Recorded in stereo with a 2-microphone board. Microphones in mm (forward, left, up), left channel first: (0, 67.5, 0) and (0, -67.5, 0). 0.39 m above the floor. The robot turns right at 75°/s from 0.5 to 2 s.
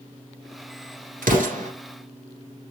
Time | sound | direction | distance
1.2 | an explosion | 85° right | 1.4 m